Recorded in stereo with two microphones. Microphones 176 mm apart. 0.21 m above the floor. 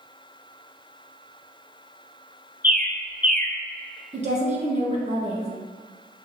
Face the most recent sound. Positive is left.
turn(degrees=-40)  # may be behind; listen again after turning